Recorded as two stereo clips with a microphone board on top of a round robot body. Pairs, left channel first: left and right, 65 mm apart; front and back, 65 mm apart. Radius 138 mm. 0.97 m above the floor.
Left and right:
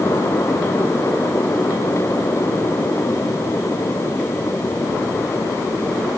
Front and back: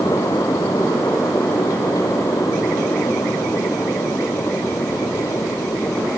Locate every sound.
Only background noise.